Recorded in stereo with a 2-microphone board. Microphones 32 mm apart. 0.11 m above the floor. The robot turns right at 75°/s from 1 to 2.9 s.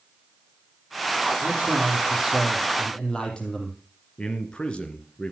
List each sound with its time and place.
1.4 s a man speaking: 85° right, 4 m; by 3.8 s 30° left, 4 m
4.2 s a man speaking: 30° left (ahead or behind), 1.7 m